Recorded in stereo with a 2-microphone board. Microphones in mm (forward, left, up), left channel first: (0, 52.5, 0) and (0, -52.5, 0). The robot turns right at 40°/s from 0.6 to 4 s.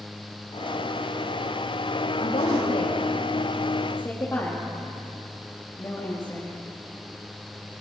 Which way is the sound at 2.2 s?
80° left.